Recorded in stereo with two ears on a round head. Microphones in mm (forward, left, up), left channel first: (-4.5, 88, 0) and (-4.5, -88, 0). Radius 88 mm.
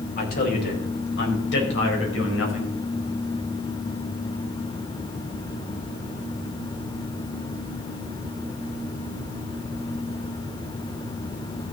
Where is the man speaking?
50° left (ahead or behind), 4 m; by 2.7 s 75° left (ahead or behind), 4.5 m.